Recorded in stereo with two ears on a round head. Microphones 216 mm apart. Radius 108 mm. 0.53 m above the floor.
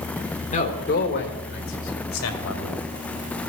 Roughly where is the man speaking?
Left.